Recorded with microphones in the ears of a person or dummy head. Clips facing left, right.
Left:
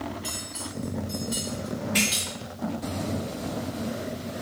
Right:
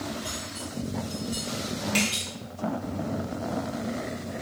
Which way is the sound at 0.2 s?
15° left (ahead or behind).